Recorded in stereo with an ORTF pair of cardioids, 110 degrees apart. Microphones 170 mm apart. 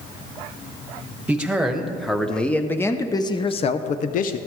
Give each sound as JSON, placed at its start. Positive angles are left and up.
{"t": 1.3, "sound": "a man speaking", "azimuth_deg": -10, "distance_m": 1.8}